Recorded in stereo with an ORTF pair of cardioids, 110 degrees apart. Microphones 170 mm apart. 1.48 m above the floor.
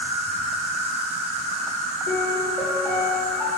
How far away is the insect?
About 0.8 m.